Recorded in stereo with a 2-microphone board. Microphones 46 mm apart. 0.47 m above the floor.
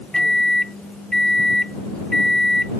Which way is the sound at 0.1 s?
10° left (ahead or behind).